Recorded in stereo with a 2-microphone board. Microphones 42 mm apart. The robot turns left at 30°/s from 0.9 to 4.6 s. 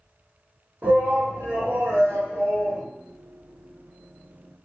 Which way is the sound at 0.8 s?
50° right.